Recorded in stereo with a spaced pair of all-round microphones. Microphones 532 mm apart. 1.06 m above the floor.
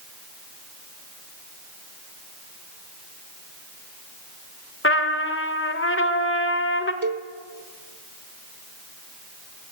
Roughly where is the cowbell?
Right.